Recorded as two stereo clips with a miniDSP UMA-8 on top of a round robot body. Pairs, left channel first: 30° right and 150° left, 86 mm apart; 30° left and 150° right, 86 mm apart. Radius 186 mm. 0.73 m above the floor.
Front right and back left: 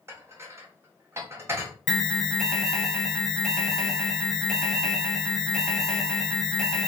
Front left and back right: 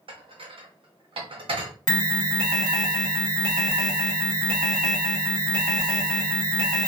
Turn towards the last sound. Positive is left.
turn(degrees=55)